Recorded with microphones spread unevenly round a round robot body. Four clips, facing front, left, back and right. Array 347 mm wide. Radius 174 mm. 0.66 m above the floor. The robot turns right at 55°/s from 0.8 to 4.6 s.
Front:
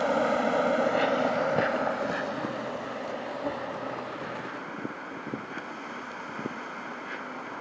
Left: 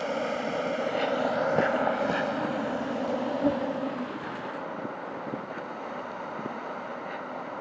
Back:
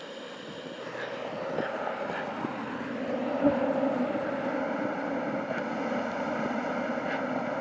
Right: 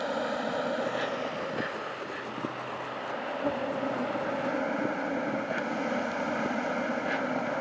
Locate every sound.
0.0 s an insect: straight ahead; by 7.6 s 150° right